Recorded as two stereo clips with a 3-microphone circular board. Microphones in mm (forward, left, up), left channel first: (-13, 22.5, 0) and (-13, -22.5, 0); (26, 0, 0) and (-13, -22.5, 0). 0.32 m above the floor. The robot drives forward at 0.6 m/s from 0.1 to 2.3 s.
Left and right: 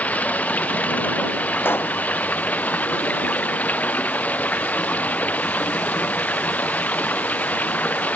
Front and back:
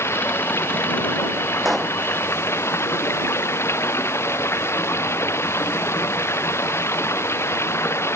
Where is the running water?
35° left; by 8.2 s 40° left.